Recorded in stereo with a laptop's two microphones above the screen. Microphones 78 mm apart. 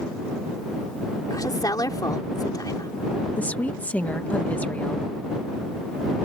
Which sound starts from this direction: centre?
A woman speaking, at 3.4 s.